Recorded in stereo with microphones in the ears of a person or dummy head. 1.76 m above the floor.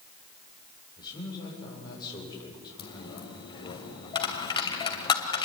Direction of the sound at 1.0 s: 25° left (ahead or behind).